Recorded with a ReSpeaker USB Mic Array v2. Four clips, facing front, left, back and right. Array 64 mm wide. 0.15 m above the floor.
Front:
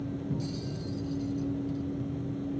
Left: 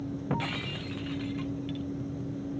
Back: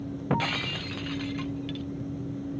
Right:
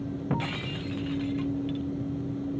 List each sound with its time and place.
0.3 s breaking glass: straight behind